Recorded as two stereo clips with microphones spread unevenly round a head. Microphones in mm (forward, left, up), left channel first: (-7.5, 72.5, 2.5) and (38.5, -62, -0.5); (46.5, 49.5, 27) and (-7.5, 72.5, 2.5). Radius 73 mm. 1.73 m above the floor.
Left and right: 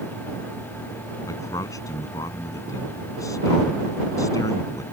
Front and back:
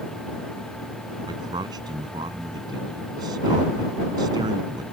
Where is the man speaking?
Straight behind.